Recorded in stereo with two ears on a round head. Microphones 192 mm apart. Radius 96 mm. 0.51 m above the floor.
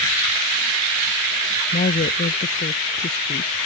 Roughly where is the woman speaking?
Left.